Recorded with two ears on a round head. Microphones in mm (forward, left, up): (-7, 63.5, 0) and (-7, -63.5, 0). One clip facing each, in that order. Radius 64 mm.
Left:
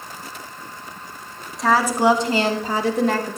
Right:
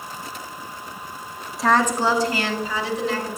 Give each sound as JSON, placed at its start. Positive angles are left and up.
{"t": 1.6, "sound": "a woman speaking", "side_deg": 0, "distance_m": 1.7}